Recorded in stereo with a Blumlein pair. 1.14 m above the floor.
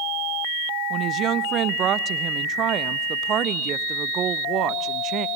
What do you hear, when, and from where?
0.9 s a woman speaking: 30° right, 0.7 m